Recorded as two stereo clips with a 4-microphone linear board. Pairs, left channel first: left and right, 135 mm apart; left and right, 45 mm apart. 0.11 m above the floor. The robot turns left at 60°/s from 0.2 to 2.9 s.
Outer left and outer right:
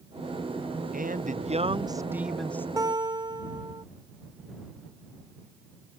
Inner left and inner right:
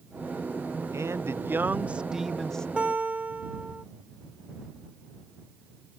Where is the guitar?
25° right (ahead or behind); by 3.9 s 30° right (ahead or behind).